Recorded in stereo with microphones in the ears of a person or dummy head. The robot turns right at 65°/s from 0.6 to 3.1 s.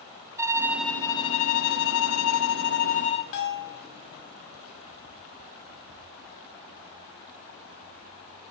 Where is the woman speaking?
I don't hear a woman speaking.